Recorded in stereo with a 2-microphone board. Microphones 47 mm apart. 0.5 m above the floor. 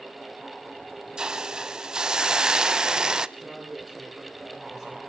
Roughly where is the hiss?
Centre.